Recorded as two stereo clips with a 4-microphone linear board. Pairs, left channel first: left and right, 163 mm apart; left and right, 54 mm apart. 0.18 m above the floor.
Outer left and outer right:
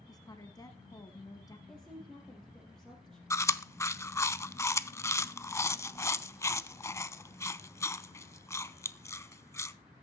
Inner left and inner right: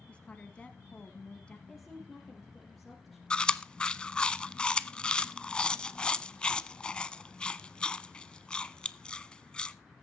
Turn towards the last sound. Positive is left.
turn(degrees=20)  # may be behind; listen again after turning